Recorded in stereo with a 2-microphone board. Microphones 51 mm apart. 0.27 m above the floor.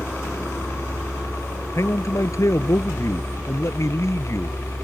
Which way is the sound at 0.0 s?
55° left (ahead or behind).